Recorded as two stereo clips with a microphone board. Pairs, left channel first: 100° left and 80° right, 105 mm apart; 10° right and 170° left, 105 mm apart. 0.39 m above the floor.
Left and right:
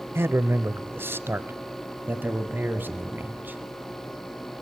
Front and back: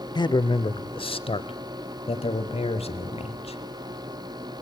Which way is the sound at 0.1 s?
25° right.